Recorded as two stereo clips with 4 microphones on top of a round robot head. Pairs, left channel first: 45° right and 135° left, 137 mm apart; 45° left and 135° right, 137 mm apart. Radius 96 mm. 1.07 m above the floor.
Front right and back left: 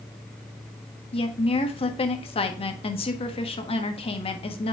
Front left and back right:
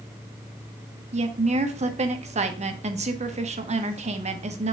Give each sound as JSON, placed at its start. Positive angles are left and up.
{"t": 1.1, "sound": "a woman speaking", "azimuth_deg": -95, "distance_m": 1.2}